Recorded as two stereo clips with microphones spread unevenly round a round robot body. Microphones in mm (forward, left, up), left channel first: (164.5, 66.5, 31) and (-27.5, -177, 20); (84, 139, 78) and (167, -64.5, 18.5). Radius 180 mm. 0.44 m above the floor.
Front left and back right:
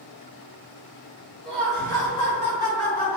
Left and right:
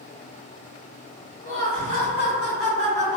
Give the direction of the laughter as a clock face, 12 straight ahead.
7 o'clock.